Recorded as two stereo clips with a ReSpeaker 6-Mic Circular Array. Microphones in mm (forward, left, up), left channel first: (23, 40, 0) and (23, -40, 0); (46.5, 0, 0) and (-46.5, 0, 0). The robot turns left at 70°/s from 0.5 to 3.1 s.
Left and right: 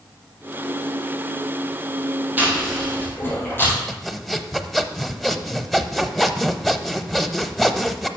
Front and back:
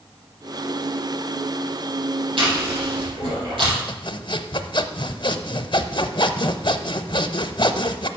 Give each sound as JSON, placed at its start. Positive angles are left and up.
{"t": 2.4, "sound": "chewing", "azimuth_deg": -155, "distance_m": 4.5}
{"t": 3.9, "sound": "sawing", "azimuth_deg": 5, "distance_m": 0.5}